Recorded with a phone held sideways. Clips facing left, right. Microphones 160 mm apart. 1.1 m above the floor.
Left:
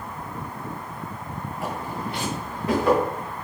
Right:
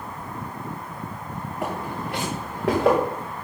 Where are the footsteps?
60° right (ahead or behind), 4 m; by 3.0 s 75° right (ahead or behind), 4.5 m.